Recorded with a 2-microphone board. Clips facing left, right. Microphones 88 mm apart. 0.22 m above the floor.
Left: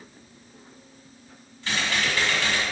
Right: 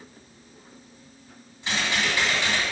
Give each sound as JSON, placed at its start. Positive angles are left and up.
{"t": 1.6, "sound": "typing on a keyboard", "side_deg": -15, "distance_m": 2.0}